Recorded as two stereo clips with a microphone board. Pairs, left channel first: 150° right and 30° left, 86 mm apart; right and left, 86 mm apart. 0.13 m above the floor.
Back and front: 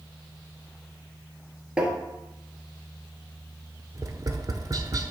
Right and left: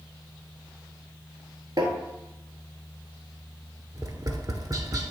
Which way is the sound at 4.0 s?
60° left.